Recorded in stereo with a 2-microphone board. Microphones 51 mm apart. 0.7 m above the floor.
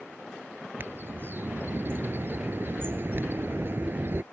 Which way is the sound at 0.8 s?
40° right (ahead or behind).